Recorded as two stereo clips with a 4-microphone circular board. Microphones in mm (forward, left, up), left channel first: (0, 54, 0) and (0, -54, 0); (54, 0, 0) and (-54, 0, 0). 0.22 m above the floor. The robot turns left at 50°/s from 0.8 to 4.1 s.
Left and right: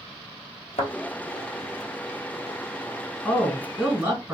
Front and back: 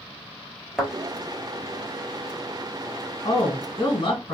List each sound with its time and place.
0.8 s a thud: 95° left, 1.0 m; by 0.9 s 85° left, 1.0 m
3.2 s a woman speaking: 25° left, 1.5 m; by 4.3 s 15° right, 1.5 m